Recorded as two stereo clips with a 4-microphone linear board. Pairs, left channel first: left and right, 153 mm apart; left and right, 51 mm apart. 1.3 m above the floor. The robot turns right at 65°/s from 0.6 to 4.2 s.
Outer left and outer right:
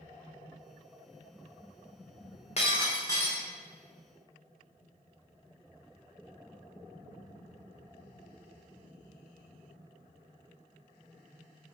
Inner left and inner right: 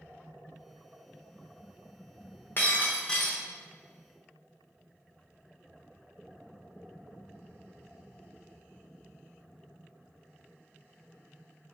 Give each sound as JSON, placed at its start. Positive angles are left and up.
{"t": 2.6, "sound": "breaking glass", "azimuth_deg": 120, "distance_m": 0.6}